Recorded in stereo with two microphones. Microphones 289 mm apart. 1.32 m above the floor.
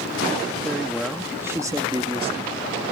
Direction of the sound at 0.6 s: 5° left (ahead or behind).